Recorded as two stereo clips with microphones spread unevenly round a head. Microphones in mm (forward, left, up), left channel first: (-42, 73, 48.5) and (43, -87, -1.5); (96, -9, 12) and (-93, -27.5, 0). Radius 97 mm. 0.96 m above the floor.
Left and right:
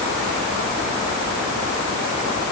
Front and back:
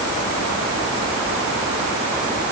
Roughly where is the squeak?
No squeak in this recording.